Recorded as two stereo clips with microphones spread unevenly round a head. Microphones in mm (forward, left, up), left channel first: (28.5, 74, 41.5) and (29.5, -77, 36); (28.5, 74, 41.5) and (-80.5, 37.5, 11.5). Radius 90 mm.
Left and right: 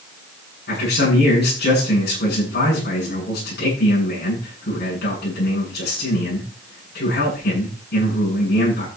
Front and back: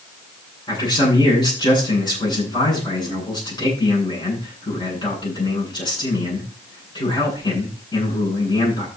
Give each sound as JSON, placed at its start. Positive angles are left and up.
{"t": 0.7, "sound": "a man speaking", "azimuth_deg": 70, "distance_m": 9.5}